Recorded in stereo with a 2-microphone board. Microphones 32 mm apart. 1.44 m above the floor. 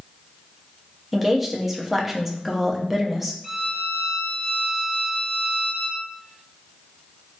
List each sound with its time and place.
1.1 s a woman speaking: 5° right (ahead or behind), 0.5 m
3.4 s a violin: 5° right (ahead or behind), 0.6 m